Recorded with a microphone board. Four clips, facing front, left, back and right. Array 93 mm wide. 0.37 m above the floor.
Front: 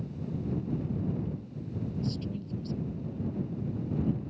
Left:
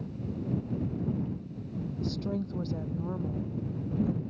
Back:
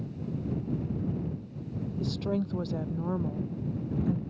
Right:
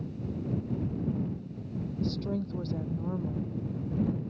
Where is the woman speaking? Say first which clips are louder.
Right 1 dB, back 5 dB; 175° left.